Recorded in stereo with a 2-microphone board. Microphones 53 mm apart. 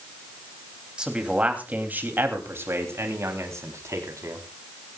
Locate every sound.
1.0 s a man speaking: 15° right (ahead or behind), 3 m; by 4.4 s 75° right (ahead or behind), 4.5 m